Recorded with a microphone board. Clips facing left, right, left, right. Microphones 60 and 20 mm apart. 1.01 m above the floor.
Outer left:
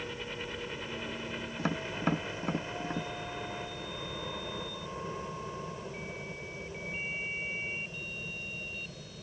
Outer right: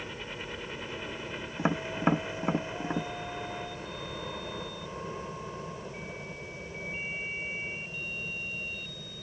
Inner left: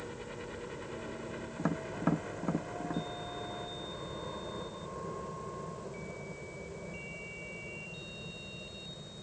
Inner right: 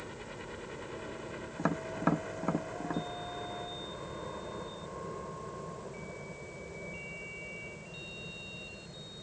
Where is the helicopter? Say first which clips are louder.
Even, inner left 1 dB; 5° right (ahead or behind).